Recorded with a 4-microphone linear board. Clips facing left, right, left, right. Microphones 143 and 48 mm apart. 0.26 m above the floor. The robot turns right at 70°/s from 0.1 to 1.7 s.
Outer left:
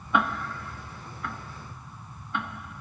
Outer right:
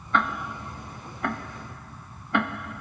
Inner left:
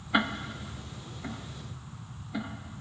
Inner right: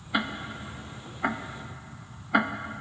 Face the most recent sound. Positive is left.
turn(degrees=-80)